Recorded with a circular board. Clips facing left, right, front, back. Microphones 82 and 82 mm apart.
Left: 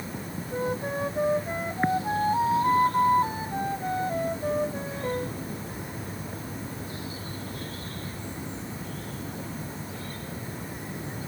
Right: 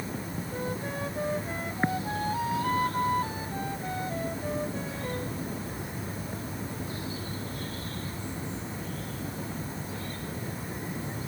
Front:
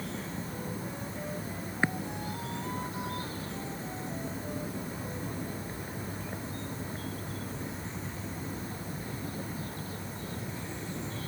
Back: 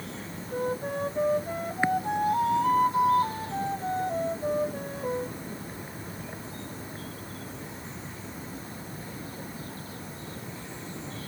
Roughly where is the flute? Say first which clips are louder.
Left 6 dB, back 9 dB; behind left.